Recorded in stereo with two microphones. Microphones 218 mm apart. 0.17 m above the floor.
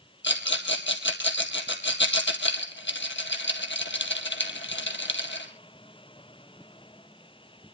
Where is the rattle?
60° left (ahead or behind), 2.0 m.